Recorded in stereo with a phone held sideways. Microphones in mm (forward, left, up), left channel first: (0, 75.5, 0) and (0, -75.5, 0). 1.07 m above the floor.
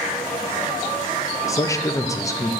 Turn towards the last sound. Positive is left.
turn(degrees=20)  # may be behind; listen again after turning